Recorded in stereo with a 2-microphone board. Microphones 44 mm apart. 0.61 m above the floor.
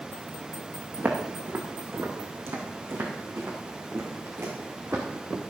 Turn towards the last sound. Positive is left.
turn(degrees=-80)